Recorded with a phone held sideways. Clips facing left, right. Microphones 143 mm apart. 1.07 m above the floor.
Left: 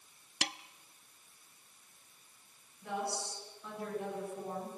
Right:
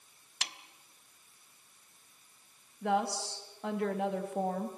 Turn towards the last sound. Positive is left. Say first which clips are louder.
# right 7 dB
turn(degrees=-70)  # may be behind; listen again after turning